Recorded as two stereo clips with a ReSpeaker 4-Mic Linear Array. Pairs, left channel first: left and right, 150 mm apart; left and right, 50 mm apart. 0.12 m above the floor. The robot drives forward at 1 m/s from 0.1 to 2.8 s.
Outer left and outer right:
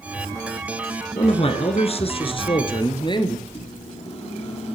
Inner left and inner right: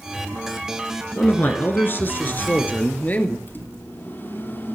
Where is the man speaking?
40° left (ahead or behind), 1.6 m; by 3.4 s 35° left (ahead or behind), 1.9 m.